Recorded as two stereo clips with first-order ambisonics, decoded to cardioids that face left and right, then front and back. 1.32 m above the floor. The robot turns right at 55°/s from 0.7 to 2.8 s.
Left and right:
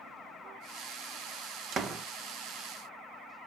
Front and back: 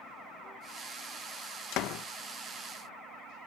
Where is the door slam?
35° right, 0.8 m; by 2.0 s 15° right, 0.8 m.